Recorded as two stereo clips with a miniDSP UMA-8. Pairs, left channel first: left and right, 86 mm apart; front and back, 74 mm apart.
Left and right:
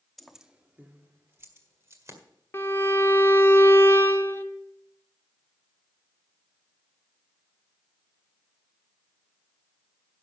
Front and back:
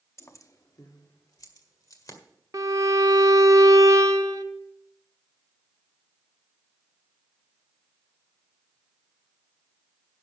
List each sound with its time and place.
0.2 s keys jangling: 5° left, 0.7 m; by 2.2 s 35° right, 1.9 m
2.5 s a violin: 150° left, 0.8 m